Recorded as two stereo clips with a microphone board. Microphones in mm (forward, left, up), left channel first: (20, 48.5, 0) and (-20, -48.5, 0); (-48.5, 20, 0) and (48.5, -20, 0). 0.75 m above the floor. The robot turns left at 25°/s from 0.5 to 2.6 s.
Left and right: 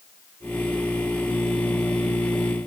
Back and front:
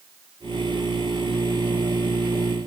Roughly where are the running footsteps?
No running footsteps in this recording.